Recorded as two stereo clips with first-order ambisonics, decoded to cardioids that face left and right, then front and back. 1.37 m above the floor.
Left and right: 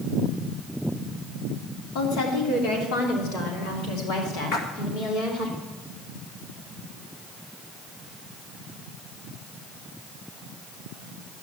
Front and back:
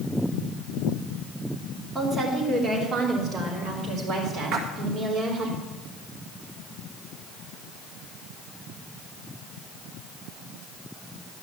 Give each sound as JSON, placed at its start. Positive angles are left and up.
{"t": 1.9, "sound": "a woman speaking", "azimuth_deg": 100, "distance_m": 3.0}
{"t": 4.5, "sound": "a splash", "azimuth_deg": 130, "distance_m": 1.9}